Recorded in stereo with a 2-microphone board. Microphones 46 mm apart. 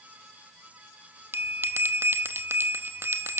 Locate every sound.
1.3 s a bell: 60° right (ahead or behind), 0.8 m